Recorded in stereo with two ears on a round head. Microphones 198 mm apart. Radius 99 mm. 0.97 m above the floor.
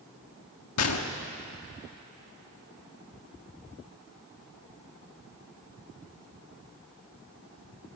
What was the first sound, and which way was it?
A gunshot, 80° left.